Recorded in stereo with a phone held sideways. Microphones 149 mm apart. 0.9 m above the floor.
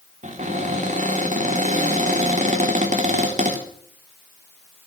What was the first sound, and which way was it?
A cupboard door, 55° right (ahead or behind).